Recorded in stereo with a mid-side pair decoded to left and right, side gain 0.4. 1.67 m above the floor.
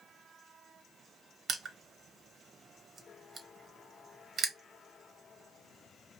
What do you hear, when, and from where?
1.5 s crushing: 55° right, 1.2 m